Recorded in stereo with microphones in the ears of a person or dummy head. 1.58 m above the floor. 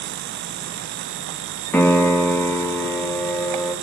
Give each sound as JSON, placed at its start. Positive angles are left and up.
{"t": 1.7, "sound": "a piano", "side_deg": 15, "distance_m": 2.5}